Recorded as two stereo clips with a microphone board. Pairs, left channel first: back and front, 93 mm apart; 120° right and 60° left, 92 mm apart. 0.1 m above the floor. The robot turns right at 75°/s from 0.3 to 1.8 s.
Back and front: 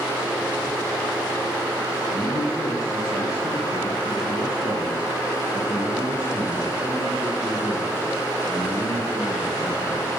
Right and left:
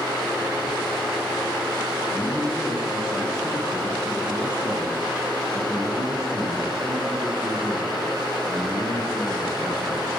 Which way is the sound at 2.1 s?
150° left.